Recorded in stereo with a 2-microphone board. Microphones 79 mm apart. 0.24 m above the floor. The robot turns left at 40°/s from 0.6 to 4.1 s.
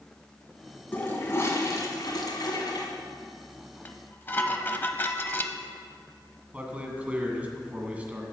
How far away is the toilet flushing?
About 1.8 m.